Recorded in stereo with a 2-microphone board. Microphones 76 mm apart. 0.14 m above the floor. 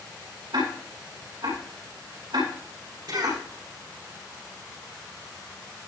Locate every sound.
0.5 s ticking: 75° right (ahead or behind), 7.5 m
3.1 s a cough: 65° right (ahead or behind), 8 m